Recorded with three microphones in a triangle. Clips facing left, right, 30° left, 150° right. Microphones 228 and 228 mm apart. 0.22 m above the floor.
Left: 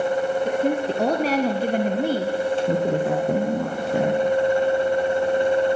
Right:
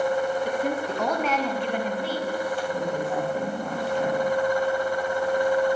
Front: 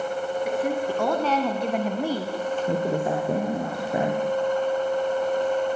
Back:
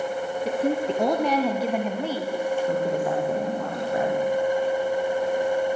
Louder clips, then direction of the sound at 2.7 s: Left 6 dB, even; 95° left.